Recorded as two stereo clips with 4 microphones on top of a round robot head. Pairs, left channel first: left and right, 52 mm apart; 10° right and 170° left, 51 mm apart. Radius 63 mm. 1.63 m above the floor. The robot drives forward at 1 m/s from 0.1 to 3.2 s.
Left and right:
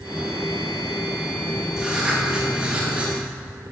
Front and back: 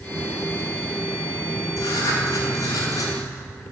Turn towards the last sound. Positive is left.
turn(degrees=-20)